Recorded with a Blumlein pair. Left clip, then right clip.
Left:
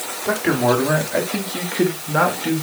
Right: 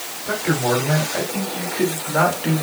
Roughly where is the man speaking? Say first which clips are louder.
Left 3 dB; ahead left.